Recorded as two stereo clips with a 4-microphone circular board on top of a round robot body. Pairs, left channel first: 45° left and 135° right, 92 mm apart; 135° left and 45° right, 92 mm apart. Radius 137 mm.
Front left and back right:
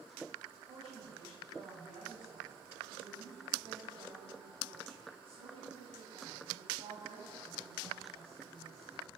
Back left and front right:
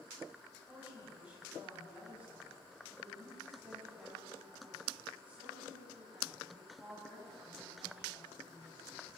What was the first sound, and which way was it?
A woman speaking, 120° right.